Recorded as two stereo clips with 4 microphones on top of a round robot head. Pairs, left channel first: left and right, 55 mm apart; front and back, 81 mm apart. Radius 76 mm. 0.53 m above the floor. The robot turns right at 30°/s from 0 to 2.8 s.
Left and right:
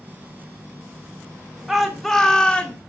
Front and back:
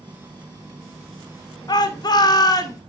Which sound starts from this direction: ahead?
A shout, at 1.7 s.